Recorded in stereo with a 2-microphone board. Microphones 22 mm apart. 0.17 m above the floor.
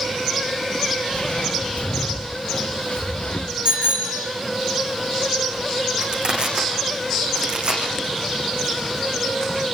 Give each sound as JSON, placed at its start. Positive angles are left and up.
{"t": 1.1, "sound": "footsteps", "side_deg": 60, "distance_m": 2.5}
{"t": 3.6, "sound": "a bicycle bell", "side_deg": -45, "distance_m": 7.0}
{"t": 6.0, "sound": "crushing", "side_deg": -50, "distance_m": 8.5}